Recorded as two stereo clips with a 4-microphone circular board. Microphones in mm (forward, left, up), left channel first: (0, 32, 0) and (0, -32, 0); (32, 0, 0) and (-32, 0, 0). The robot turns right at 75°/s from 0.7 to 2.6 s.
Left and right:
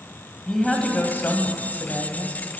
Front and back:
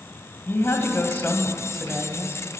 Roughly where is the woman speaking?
Ahead.